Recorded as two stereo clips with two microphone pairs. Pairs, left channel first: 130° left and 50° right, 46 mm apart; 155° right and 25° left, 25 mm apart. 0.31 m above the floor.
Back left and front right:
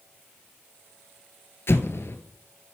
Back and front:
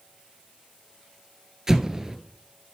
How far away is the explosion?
About 1.0 m.